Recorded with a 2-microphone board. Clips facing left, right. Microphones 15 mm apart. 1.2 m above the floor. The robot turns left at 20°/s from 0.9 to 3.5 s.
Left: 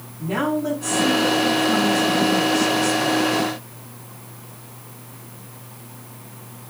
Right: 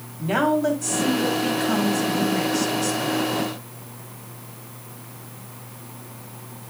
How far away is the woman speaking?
About 7 m.